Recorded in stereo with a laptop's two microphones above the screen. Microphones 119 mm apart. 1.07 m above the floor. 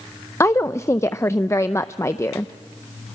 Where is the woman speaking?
25° left (ahead or behind), 0.5 m.